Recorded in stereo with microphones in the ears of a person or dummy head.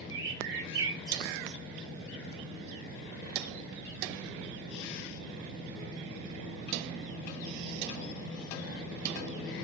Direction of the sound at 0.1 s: 15° right (ahead or behind).